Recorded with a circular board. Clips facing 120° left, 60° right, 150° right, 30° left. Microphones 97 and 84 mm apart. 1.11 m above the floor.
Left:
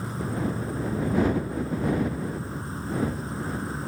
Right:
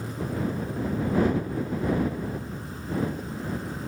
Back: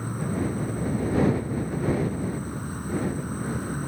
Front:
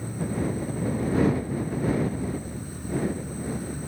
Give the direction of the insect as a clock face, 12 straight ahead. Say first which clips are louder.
Left 1 dB, even; 6 o'clock.